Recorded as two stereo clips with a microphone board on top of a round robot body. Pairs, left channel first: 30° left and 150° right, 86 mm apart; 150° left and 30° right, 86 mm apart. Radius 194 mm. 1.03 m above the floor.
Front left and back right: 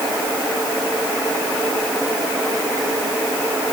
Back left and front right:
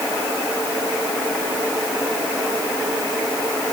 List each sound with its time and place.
Only background noise.